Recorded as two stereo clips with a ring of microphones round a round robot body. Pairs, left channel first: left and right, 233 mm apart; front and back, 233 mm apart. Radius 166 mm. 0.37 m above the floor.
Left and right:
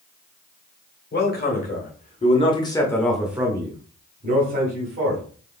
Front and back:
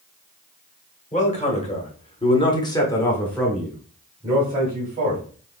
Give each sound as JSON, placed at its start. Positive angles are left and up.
{"t": 1.1, "sound": "a man speaking", "azimuth_deg": 55, "distance_m": 1.7}